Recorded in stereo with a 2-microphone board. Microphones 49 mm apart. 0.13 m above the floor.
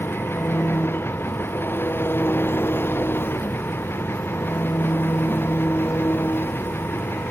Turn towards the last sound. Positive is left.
turn(degrees=50)  # may be behind; listen again after turning